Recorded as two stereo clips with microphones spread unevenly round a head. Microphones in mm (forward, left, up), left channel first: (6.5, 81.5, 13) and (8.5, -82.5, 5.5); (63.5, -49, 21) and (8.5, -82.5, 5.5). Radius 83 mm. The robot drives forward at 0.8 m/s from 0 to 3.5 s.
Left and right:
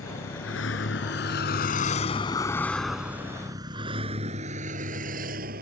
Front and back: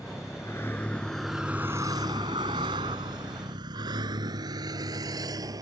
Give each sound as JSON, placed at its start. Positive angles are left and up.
{"t": 0.0, "sound": "a vehicle", "azimuth_deg": 95}